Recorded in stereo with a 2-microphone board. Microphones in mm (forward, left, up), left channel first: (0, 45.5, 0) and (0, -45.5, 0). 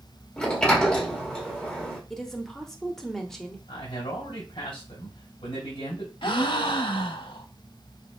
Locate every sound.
0.4 s a sliding door: 10° left (ahead or behind), 1.3 m
2.1 s a woman speaking: 5° left (ahead or behind), 0.9 m
3.7 s a man speaking: 70° left (ahead or behind), 2.5 m
6.2 s a gasp: 60° left (ahead or behind), 0.6 m